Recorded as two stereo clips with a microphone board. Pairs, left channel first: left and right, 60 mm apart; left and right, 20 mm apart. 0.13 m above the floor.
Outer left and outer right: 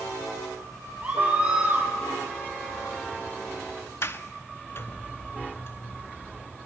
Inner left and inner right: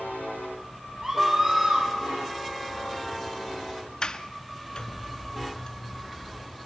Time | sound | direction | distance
1.0 | a scream | 20° right (ahead or behind) | 4.5 m
4.0 | a sliding door | 45° left (ahead or behind) | 0.6 m